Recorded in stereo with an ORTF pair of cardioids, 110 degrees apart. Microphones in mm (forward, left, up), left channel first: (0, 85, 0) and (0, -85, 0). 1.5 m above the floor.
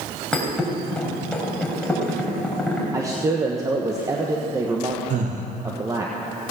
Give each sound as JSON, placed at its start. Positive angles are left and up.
{"t": 0.3, "sound": "a thud", "azimuth_deg": 5, "distance_m": 3.5}
{"t": 2.9, "sound": "a man speaking", "azimuth_deg": -20, "distance_m": 1.2}
{"t": 5.1, "sound": "breathing", "azimuth_deg": -45, "distance_m": 1.7}